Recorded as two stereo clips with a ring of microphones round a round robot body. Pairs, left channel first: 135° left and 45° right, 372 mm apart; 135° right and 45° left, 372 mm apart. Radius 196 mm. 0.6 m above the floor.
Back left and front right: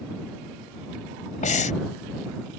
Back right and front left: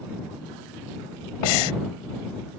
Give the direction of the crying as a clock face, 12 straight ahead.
No crying in this recording.